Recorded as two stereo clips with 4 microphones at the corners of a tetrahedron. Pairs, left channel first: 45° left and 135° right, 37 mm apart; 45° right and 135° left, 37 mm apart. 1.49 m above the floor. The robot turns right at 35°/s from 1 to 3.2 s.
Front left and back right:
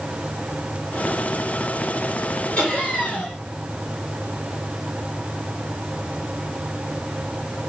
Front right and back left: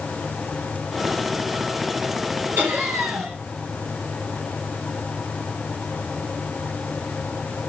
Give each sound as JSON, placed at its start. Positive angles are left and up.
{"t": 2.6, "sound": "laughter", "azimuth_deg": 95, "distance_m": 3.0}